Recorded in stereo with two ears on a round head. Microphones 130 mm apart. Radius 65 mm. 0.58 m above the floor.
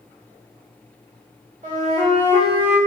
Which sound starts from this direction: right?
A flute, at 1.6 s.